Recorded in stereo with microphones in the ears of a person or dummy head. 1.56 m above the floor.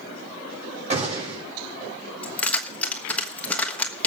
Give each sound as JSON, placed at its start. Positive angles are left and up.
{"t": 0.9, "sound": "a gunshot", "side_deg": -30, "distance_m": 6.5}
{"t": 2.2, "sound": "keys jangling", "side_deg": 5, "distance_m": 1.4}